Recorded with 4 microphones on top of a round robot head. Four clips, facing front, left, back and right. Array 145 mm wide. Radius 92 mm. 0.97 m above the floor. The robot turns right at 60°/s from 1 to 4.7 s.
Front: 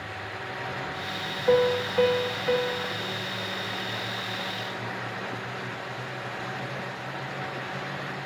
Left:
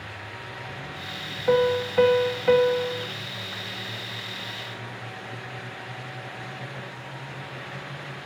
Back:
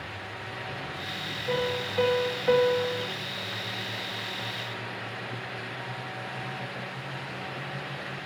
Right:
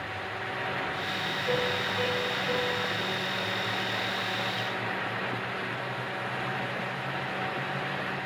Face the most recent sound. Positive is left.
turn(degrees=-125)